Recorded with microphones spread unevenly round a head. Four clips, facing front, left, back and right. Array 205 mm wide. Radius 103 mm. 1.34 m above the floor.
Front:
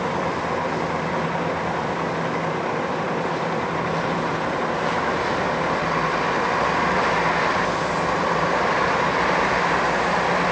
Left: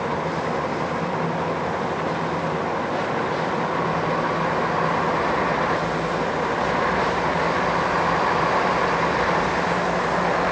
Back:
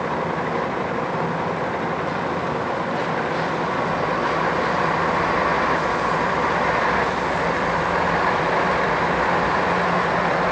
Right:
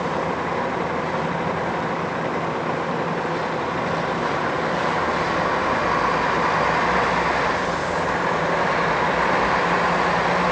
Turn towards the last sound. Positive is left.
No sound to turn to.